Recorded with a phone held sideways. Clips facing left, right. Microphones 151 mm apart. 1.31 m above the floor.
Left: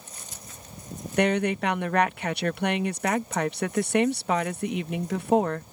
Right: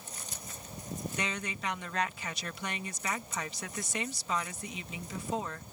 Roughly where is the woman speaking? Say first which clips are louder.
Left 18 dB; left.